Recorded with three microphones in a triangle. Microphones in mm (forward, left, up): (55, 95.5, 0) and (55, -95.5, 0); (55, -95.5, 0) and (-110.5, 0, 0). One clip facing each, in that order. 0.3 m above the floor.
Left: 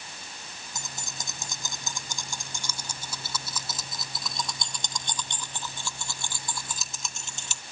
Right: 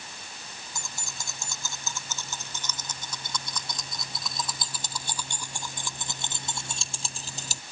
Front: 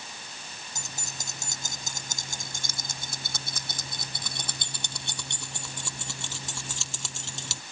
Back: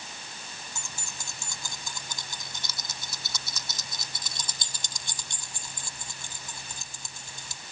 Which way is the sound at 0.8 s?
20° left.